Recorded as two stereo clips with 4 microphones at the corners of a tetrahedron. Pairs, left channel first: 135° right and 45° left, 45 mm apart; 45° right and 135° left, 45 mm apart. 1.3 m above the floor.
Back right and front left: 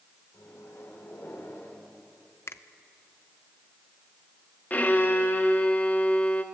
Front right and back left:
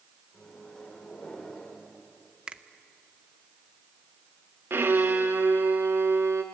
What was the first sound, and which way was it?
A microwave, 120° right.